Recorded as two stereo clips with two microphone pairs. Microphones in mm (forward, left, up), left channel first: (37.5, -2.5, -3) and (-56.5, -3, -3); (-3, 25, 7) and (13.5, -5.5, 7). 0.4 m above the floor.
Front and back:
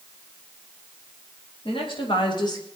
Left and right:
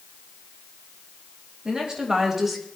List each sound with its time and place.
1.6 s a woman speaking: straight ahead, 2.5 m; by 2.7 s 25° left, 1.3 m